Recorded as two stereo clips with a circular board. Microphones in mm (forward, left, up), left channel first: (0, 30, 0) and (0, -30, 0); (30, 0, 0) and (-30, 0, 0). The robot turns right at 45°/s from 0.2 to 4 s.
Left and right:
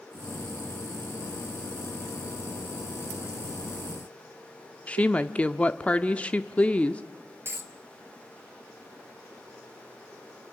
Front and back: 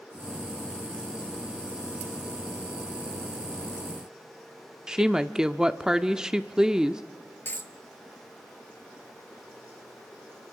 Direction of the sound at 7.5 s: 45° right.